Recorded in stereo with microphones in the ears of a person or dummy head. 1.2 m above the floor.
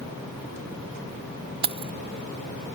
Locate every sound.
1.6 s keys jangling: 30° right (ahead or behind)